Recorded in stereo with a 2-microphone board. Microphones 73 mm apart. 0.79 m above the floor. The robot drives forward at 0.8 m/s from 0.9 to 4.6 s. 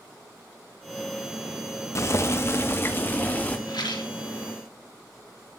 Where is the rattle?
80° left, 2.5 m; by 4.1 s 90° left, 2.5 m.